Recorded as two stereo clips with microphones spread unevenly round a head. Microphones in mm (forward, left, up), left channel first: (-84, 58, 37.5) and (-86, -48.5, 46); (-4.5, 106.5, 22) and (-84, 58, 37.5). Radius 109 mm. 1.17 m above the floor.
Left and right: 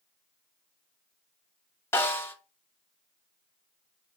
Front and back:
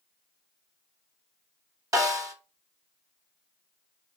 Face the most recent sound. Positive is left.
turn(degrees=155)